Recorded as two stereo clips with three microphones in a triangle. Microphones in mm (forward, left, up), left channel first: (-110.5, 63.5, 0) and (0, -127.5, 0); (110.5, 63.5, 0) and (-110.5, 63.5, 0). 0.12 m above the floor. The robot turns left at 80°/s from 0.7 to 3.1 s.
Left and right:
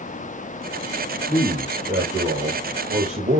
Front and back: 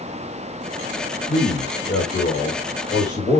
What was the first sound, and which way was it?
A man speaking, 50° left.